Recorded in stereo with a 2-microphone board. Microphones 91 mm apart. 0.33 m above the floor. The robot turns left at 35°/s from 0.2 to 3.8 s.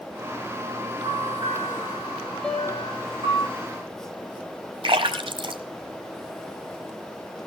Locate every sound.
1.0 s a bell: 40° right (ahead or behind), 8.5 m; by 3.4 s 60° right (ahead or behind), 8.5 m
2.4 s a piano: 10° left (ahead or behind), 2.5 m; by 3.0 s 30° left (ahead or behind), 2.5 m
4.8 s a splash: 65° right (ahead or behind), 1.5 m